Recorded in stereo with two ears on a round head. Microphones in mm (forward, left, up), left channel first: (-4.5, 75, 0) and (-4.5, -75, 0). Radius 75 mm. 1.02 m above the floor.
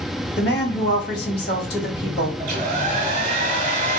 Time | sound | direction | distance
0.4 | a woman speaking | 65° left (ahead or behind) | 2.0 m
2.4 | a hair dryer | 45° right (ahead or behind) | 1.2 m